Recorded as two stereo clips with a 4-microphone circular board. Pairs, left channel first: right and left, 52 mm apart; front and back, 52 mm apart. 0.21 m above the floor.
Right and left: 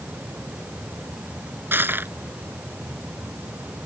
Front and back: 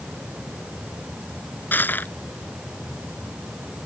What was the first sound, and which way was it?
Crushing, 45° left.